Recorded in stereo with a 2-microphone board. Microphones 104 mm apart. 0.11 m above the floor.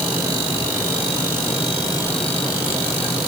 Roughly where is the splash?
I don't hear a splash.